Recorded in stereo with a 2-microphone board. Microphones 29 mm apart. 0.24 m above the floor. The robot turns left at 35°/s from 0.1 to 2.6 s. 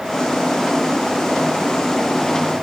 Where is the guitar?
No guitar in this recording.